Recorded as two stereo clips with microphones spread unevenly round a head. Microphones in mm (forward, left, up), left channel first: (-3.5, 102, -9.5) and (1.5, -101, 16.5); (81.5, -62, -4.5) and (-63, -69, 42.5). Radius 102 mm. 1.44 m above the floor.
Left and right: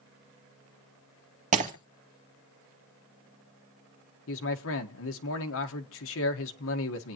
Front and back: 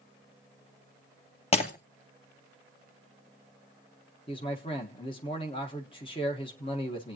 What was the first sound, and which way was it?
Breaking glass, 50° right.